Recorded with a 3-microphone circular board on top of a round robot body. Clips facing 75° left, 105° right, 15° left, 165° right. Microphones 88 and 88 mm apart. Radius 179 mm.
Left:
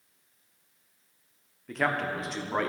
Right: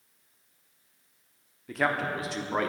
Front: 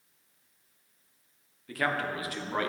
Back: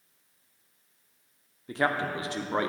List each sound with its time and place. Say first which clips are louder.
1.7 s a man speaking: right 1 dB, back 3 dB; 170° left, 1.1 m